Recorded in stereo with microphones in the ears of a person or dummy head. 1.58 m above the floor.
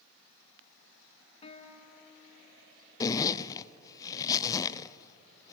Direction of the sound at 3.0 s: 20° left (ahead or behind).